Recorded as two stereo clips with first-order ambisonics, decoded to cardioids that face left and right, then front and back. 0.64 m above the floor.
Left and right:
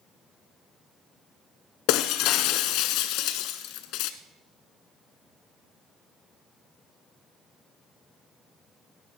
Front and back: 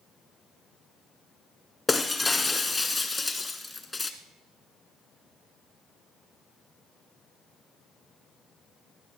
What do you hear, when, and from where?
1.9 s breaking glass: 80° left, 0.9 m